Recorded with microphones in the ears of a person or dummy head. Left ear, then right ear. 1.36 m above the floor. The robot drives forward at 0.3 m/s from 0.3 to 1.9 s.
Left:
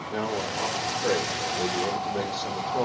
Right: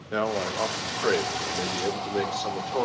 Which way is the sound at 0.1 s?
60° right (ahead or behind).